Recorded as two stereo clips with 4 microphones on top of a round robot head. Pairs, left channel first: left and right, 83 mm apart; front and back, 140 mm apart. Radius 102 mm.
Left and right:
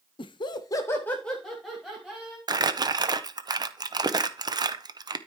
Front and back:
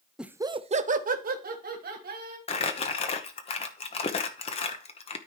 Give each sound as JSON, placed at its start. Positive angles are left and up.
{"t": 0.2, "sound": "laughter", "azimuth_deg": 95, "distance_m": 0.7}
{"t": 2.5, "sound": "crumpling", "azimuth_deg": -50, "distance_m": 0.7}